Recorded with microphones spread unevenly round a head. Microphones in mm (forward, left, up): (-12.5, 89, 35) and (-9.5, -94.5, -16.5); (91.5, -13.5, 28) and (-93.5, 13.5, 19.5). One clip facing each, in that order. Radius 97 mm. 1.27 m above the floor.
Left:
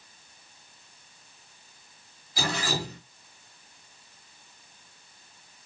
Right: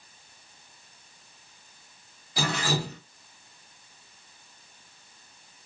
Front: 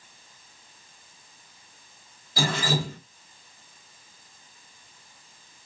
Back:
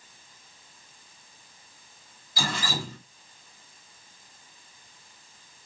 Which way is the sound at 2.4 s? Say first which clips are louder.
Right 2 dB, front 5 dB; 50° right.